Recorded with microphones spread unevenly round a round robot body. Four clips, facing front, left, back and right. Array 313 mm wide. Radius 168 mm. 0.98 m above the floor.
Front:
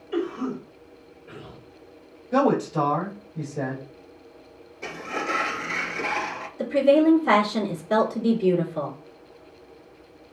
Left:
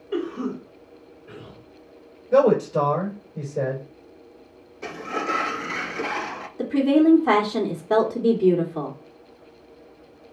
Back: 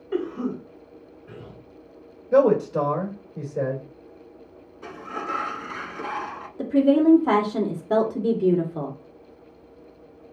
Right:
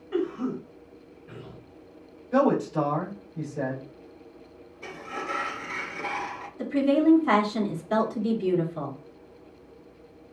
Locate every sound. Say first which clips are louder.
0.1 s a cough: left 1 dB, even; 140° left, 3.5 m
2.3 s a man speaking: left 5 dB, back 3 dB; 120° left, 4 m
4.8 s a sliding door: left 7 dB, front 2 dB; 80° left, 0.8 m
6.6 s a woman speaking: left 4 dB, even; 115° left, 2.5 m